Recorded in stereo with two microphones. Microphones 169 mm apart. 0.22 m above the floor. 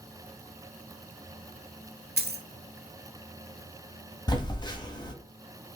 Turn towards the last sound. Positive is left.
turn(degrees=25)  # may be behind; listen again after turning